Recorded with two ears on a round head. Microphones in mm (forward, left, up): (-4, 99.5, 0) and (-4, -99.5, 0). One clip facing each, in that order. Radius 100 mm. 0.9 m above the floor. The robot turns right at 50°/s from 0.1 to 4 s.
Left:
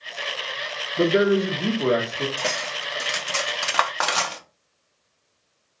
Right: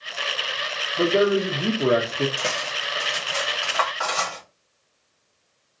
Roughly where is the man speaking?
Behind left.